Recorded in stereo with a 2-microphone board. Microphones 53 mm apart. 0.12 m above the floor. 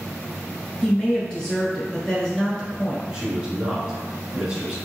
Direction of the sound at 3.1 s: 15° right (ahead or behind).